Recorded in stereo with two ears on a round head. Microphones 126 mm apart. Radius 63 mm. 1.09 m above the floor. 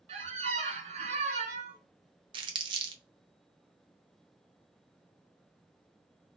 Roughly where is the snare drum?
I don't hear a snare drum.